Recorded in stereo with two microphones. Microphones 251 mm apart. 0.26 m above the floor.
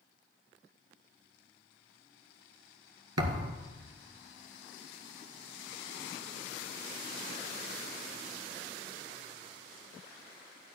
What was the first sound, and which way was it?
A thud, 80° right.